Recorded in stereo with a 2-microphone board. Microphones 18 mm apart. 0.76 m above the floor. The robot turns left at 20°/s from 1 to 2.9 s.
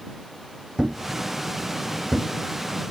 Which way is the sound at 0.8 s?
50° right (ahead or behind).